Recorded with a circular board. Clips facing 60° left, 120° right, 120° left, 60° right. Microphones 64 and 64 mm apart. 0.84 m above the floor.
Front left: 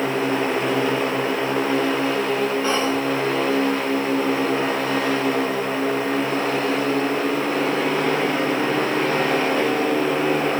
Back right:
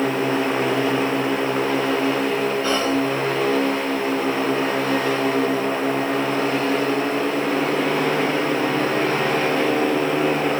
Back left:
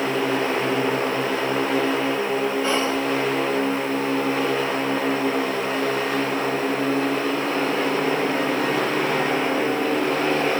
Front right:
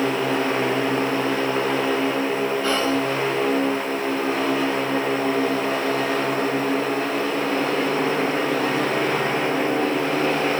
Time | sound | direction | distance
2.6 | whispering | 65° left | 1.0 m